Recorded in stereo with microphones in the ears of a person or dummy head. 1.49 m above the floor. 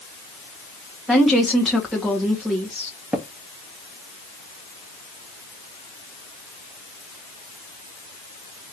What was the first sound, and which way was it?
A woman speaking, centre (ahead or behind).